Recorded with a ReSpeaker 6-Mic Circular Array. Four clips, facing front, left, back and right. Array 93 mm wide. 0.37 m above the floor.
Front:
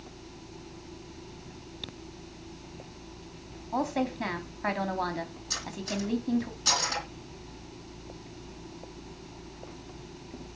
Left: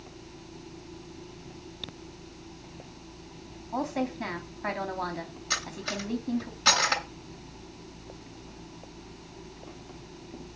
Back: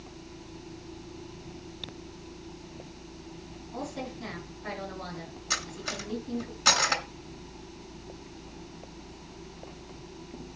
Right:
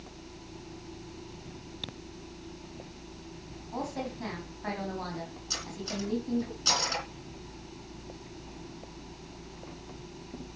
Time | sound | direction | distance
3.7 | a woman speaking | 25° left | 3 m
5.5 | cutlery clinking | 130° left | 2.5 m